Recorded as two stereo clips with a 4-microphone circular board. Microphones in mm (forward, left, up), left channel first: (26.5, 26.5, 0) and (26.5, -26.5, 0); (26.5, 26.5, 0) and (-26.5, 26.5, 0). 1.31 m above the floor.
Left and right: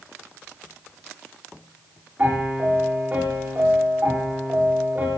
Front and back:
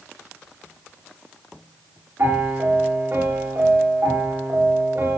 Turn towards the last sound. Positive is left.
turn(degrees=-150)